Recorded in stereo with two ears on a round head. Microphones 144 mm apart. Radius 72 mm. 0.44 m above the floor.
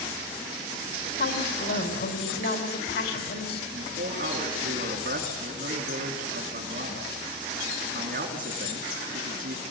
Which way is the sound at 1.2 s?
65° left (ahead or behind).